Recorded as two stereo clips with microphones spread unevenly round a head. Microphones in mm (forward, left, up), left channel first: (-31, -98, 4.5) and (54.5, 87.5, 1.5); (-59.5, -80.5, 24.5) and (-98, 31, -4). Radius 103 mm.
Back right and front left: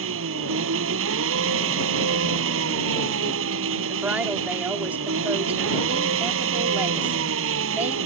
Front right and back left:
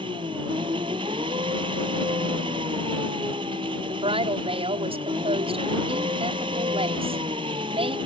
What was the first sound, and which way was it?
An engine running, 40° left.